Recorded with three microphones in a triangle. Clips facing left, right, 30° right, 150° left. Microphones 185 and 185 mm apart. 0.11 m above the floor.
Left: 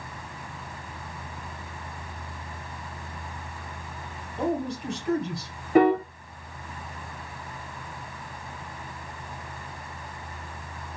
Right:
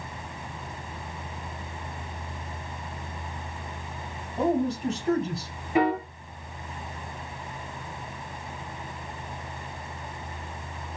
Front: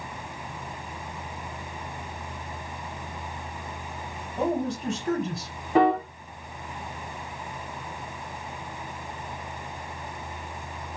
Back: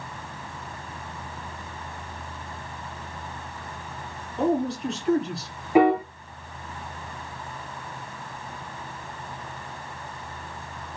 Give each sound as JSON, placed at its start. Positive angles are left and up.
{"t": 4.4, "sound": "a man speaking", "azimuth_deg": -55, "distance_m": 2.5}
{"t": 5.8, "sound": "a piano", "azimuth_deg": 75, "distance_m": 0.8}